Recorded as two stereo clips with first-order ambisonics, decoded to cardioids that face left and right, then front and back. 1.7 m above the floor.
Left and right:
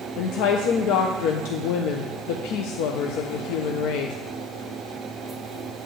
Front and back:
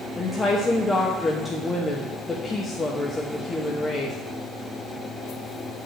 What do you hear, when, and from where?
0.2 s a woman speaking: 80° left, 1.0 m